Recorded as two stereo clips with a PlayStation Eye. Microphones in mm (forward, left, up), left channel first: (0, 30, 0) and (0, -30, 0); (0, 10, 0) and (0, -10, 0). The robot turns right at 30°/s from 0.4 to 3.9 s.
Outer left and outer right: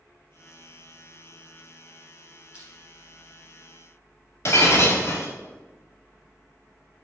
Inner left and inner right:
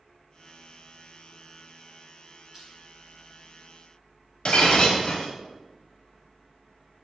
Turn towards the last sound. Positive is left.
turn(degrees=50)  # may be behind; listen again after turning